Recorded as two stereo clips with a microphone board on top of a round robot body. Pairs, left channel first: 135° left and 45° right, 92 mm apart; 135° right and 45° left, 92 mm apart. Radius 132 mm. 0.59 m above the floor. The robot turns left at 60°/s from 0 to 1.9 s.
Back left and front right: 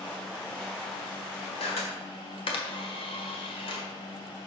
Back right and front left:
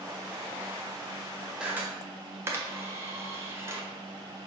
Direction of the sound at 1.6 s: 125° left.